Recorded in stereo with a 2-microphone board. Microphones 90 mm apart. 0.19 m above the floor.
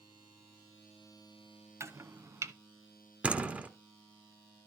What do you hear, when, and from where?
1.8 s chopping: 30° right (ahead or behind), 0.7 m
3.2 s a door slam: 15° right (ahead or behind), 1.2 m